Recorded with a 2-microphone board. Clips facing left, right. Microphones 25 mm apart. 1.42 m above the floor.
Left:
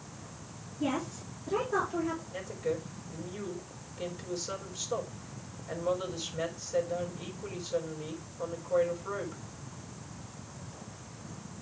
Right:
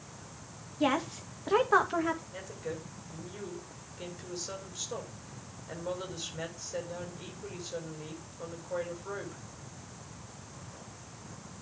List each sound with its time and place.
0.8 s a woman speaking: 85° right, 1.7 m
2.3 s a woman speaking: centre (ahead or behind), 4 m